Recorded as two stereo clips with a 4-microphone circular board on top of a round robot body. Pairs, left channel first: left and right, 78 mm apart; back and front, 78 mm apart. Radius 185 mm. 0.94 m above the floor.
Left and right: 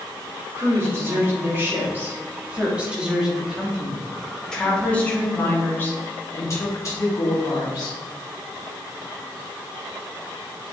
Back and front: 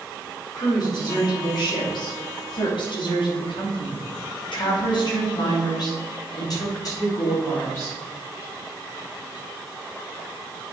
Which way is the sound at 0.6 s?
145° right.